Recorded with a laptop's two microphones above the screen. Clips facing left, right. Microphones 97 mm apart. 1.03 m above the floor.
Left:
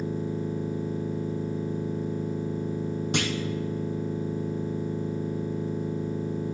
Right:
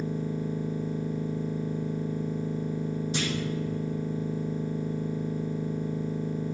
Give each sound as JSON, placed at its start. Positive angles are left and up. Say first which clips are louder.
{"t": 0.0, "sound": "a machine running", "louder": "left 1 dB", "side_deg": 20, "distance_m": 2.5}
{"t": 3.1, "sound": "a clunk", "louder": "left 5 dB", "side_deg": 65, "distance_m": 0.9}